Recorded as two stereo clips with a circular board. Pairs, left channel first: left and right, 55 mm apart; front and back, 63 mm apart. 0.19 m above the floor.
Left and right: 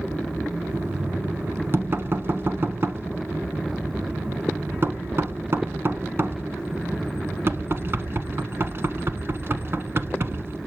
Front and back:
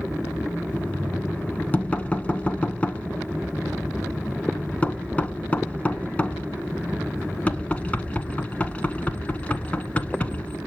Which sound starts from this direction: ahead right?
Knocking, at 0.7 s.